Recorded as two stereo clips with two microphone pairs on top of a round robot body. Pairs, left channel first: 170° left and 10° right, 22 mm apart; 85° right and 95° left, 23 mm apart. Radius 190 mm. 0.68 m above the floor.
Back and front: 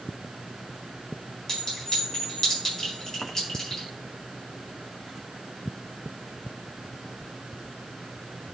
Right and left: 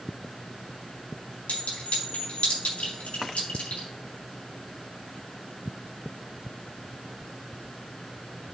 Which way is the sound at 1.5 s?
120° right.